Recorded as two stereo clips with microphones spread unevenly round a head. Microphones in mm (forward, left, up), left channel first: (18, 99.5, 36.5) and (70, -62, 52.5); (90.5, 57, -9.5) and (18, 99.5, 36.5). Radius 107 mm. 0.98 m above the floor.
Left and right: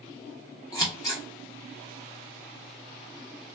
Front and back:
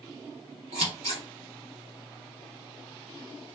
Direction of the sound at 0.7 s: Straight behind.